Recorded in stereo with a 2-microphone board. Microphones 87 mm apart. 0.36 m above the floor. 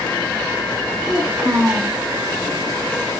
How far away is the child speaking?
About 3 m.